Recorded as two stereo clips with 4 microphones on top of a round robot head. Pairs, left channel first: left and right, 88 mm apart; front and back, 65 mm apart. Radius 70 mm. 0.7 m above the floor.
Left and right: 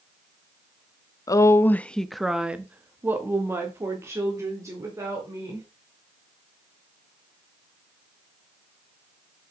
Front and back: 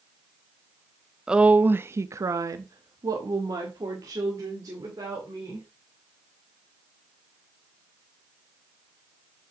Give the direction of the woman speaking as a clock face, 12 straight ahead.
9 o'clock.